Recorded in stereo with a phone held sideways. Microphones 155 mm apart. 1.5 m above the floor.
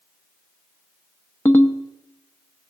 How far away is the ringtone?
About 0.8 m.